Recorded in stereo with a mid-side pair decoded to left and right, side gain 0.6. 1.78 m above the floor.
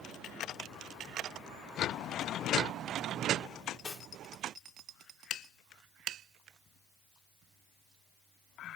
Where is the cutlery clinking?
30° left, 2.5 m.